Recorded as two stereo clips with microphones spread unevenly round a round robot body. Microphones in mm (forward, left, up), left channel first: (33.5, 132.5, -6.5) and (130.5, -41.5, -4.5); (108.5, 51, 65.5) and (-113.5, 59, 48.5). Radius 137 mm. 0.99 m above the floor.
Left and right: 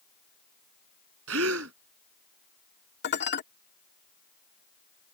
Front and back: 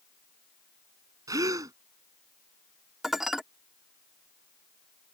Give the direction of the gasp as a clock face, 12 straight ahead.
3 o'clock.